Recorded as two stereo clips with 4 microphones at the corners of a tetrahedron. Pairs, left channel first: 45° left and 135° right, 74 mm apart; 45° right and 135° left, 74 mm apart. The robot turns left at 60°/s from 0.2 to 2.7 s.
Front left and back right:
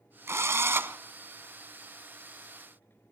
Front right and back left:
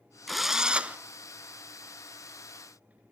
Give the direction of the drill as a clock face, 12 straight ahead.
4 o'clock.